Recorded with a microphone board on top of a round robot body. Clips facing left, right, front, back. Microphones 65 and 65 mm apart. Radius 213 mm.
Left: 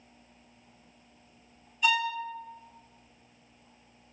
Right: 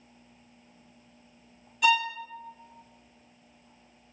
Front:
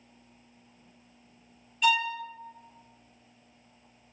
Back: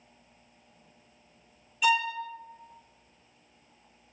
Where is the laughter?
No laughter in this recording.